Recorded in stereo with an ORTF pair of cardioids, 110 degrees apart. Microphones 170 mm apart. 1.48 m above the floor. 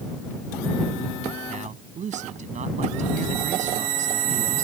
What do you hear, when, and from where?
1.5 s a man speaking: 45° right